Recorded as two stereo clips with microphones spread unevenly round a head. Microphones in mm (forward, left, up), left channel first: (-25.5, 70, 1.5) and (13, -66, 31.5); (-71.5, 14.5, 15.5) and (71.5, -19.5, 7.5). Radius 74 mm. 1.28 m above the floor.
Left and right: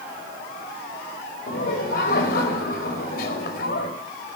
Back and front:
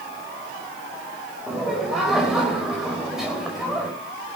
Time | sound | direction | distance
1.5 | laughter | 75° left | 5 m